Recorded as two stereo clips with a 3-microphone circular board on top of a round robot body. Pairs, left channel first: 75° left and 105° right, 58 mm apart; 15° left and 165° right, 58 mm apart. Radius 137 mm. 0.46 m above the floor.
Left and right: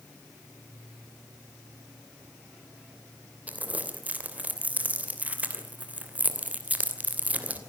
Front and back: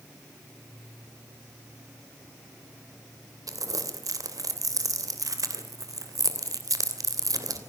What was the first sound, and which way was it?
Crumpling, 170° right.